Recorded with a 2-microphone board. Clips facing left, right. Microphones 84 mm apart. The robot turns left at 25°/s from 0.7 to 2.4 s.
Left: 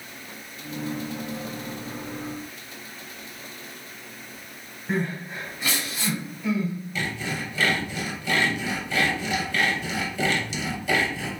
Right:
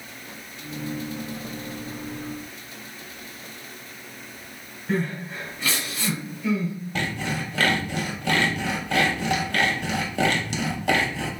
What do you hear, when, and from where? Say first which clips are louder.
4.9 s crying: right 1 dB; 10° left (ahead or behind), 1.3 m
7.0 s sawing: right 4 dB; 60° right (ahead or behind), 0.7 m